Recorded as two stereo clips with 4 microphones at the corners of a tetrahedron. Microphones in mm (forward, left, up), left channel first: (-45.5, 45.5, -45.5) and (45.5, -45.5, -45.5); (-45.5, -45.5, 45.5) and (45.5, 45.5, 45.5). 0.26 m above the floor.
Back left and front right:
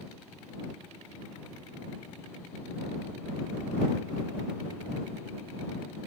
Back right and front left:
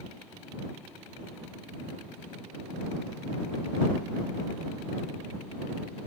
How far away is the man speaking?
No man speaking in this recording.